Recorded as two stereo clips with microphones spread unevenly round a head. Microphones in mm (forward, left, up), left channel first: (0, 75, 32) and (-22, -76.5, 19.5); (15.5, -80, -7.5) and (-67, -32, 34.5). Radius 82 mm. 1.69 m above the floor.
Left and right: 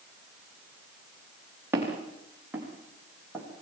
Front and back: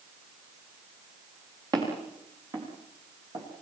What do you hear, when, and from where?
1.7 s footsteps: 175° right, 7 m; by 3.5 s 175° left, 8 m